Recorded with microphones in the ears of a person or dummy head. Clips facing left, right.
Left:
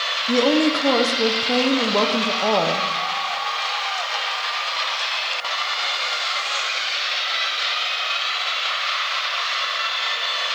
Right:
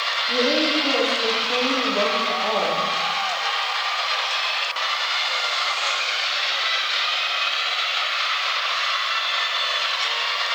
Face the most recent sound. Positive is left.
turn(degrees=65)  # may be behind; listen again after turning